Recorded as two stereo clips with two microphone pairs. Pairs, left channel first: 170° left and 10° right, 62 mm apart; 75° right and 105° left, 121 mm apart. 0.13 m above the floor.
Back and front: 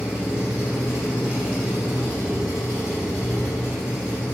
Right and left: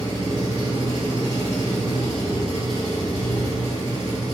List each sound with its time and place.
0.0 s an engine running: 60° left, 1.2 m